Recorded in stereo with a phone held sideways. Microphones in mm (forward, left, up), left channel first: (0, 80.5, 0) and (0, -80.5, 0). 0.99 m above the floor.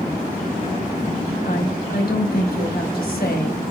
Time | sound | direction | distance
1.4 | a woman speaking | 70° left (ahead or behind) | 4.5 m